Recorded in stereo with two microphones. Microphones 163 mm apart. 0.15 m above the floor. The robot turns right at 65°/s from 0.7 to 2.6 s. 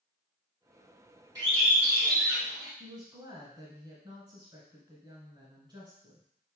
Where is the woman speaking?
30° right (ahead or behind), 1.4 m.